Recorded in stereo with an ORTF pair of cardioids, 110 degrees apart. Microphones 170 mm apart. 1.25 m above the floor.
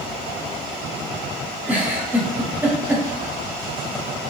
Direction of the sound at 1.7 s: 10° right.